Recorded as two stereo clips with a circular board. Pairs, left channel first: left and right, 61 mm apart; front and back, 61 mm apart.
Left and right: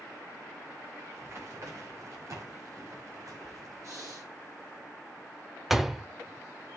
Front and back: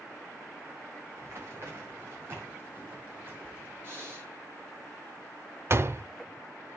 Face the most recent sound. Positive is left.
turn(degrees=-175)